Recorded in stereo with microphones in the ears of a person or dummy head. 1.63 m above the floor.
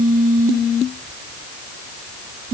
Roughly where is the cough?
I don't hear a cough.